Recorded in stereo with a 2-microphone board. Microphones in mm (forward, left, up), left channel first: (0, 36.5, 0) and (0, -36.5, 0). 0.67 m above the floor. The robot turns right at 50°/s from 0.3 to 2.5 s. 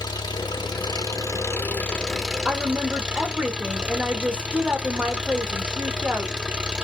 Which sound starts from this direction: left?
An engine running, at 0.0 s.